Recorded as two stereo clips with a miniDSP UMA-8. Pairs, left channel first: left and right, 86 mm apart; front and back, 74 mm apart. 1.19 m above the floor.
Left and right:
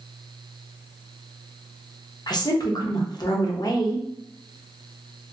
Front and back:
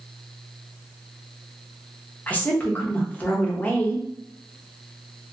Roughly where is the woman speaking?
Ahead left.